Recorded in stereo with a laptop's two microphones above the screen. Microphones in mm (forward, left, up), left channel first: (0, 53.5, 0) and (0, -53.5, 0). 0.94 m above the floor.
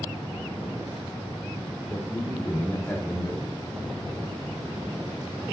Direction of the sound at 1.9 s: 15° left (ahead or behind).